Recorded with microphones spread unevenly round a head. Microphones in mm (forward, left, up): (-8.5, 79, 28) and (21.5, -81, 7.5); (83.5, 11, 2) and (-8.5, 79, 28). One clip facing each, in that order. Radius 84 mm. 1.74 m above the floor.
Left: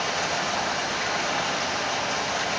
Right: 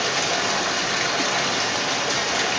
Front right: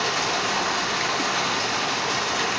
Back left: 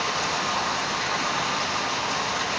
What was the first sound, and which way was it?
Running water, 85° right.